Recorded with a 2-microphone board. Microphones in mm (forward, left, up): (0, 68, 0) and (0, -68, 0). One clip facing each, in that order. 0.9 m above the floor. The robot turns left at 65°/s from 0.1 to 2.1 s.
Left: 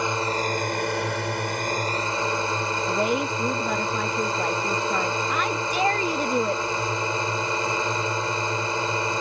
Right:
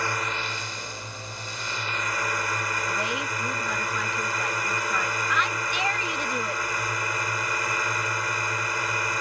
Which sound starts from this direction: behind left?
A drone, at 0.0 s.